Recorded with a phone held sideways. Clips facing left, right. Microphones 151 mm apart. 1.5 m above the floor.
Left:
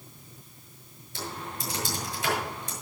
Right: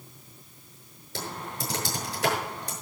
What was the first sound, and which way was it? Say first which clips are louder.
Typing on a keyboard: right 1 dB; 70° right (ahead or behind).